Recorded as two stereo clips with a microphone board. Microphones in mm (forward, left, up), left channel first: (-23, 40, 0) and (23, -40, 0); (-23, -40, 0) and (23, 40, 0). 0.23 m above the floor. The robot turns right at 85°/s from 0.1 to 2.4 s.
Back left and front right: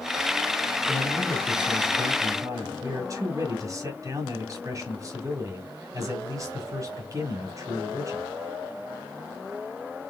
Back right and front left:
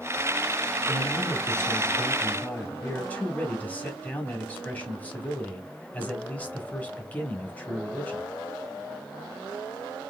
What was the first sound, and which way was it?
A man speaking, 170° left.